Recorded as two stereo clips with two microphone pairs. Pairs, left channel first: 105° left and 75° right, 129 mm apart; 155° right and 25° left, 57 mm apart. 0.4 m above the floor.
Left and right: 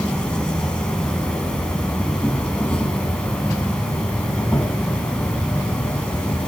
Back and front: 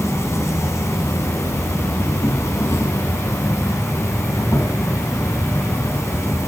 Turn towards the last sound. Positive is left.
turn(degrees=-170)